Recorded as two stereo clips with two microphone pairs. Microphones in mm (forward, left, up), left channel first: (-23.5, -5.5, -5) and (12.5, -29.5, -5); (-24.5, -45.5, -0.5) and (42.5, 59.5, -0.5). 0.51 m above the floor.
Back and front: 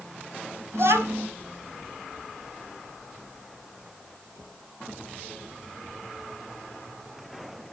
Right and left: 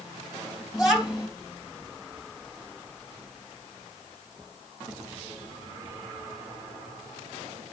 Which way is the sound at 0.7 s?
30° right.